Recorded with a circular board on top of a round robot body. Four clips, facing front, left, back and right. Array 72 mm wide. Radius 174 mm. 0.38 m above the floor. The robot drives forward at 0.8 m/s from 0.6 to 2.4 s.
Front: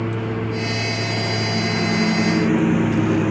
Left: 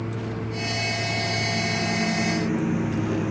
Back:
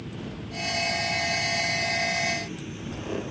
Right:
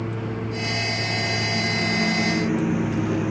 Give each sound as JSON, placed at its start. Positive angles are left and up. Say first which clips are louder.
{"t": 0.0, "sound": "a lawn mower", "louder": "right 2 dB, front 13 dB", "azimuth_deg": -10}